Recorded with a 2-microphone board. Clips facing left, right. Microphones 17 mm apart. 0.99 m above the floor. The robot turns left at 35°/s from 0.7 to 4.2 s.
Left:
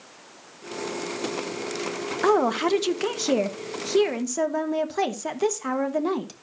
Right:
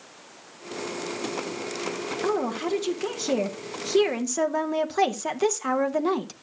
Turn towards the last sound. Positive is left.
turn(degrees=-5)